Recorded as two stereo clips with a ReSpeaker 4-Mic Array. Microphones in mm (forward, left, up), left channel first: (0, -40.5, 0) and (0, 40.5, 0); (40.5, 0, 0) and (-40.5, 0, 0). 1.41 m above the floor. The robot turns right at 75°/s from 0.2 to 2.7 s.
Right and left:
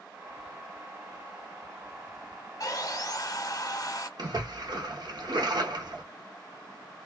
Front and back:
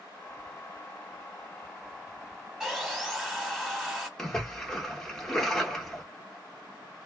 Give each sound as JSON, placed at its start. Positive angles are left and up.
{"t": 2.6, "sound": "sawing", "azimuth_deg": -105, "distance_m": 1.1}
{"t": 4.2, "sound": "a splash", "azimuth_deg": 85, "distance_m": 0.9}